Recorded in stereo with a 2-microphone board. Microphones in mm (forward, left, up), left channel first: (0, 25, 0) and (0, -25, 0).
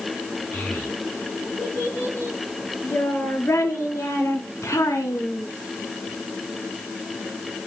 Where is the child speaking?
35° left (ahead or behind), 6.5 m; by 5.5 s 75° left (ahead or behind), 2.5 m.